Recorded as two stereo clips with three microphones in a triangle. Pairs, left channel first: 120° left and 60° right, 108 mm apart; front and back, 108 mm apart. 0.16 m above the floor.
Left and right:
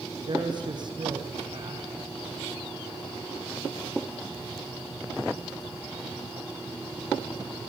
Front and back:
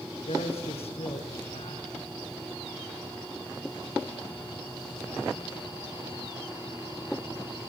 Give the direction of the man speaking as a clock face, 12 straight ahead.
1 o'clock.